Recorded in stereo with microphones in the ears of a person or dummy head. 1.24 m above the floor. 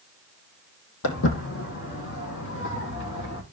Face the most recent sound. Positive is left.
turn(degrees=55)  # may be behind; listen again after turning